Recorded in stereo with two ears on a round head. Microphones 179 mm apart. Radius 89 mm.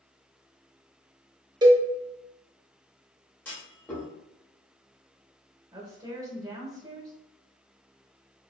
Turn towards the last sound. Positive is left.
turn(degrees=-20)  # may be behind; listen again after turning